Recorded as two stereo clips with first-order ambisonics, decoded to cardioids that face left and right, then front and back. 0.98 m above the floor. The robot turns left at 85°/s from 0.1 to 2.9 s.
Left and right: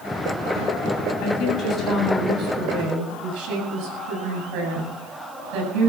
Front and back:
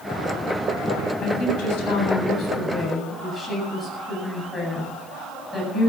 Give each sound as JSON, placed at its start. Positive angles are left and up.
{"t": 1.2, "sound": "a woman speaking", "azimuth_deg": 60, "distance_m": 8.0}